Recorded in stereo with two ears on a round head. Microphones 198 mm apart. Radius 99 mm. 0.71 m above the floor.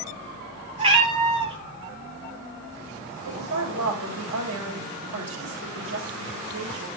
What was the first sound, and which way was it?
A cat meowing, 25° right (ahead or behind).